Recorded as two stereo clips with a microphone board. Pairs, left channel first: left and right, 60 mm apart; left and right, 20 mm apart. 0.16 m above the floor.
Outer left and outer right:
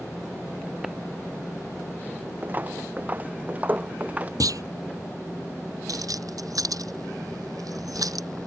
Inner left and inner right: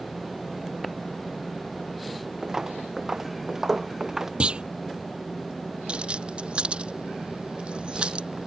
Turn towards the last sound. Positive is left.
turn(degrees=-80)